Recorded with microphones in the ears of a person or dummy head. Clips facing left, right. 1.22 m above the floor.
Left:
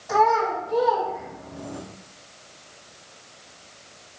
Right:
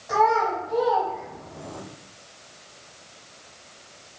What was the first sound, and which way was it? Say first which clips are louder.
A child speaking: left 1 dB; centre (ahead or behind).